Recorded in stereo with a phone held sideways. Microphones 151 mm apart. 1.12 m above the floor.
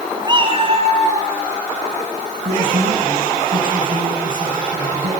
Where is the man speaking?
60° right (ahead or behind), 9.5 m.